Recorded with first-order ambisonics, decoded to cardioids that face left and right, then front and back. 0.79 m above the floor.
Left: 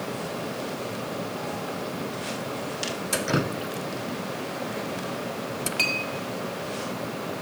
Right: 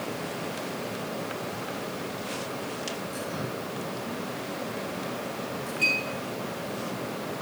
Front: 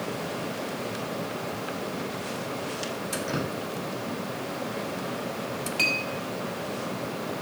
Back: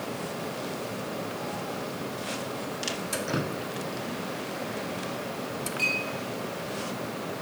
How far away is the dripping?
About 0.6 m.